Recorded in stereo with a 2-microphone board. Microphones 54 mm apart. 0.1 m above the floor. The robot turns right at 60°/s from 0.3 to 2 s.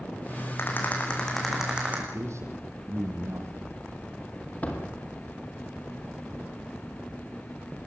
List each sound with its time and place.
0.6 s a rattle: 130° left, 5 m; by 2.0 s 145° right, 5 m
2.1 s a man speaking: 70° right (ahead or behind), 4 m
4.6 s a door slam: 30° left (ahead or behind), 2.5 m